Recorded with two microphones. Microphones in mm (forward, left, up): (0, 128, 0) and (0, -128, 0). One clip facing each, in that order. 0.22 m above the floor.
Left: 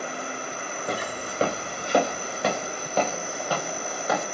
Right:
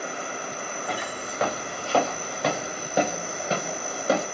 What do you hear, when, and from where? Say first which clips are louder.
0.9 s footsteps: left 4 dB; 45° left (ahead or behind), 1.4 m; by 4.2 s 35° right (ahead or behind), 1.9 m